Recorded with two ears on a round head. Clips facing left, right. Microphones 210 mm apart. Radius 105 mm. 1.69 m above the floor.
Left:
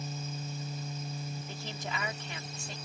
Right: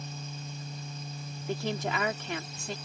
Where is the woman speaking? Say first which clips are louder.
Right 9 dB; 50° right (ahead or behind).